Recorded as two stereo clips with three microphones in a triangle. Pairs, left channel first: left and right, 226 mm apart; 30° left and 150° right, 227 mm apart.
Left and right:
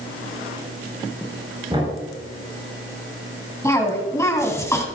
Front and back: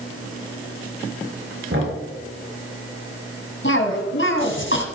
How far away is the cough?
About 2.5 m.